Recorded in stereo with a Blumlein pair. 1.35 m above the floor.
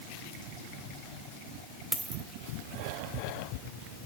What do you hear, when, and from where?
1.9 s a dropped coin: 10° right, 2.5 m